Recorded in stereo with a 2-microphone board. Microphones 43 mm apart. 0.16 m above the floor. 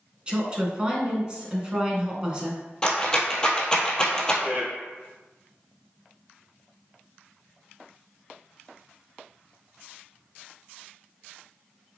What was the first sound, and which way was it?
A woman speaking, 25° right (ahead or behind).